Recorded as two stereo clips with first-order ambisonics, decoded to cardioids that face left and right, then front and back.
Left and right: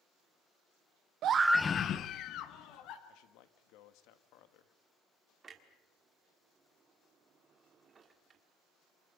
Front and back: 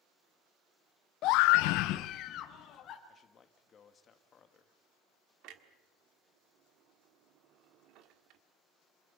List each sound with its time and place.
1.2 s a scream: 45° right, 0.5 m; by 3.0 s 55° left, 2.5 m
3.1 s a man speaking: 65° left, 1.7 m
5.4 s a clunk: 155° right, 1.6 m